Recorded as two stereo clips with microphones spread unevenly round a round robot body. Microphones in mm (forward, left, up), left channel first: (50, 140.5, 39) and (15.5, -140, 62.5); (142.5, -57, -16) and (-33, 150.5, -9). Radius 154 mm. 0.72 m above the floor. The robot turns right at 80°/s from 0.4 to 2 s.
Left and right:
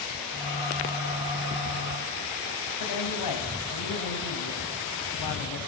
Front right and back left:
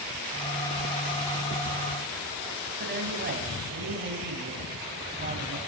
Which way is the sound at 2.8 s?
80° left.